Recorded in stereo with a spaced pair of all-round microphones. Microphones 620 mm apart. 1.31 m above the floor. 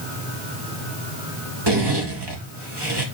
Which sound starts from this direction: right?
A zipper, at 1.7 s.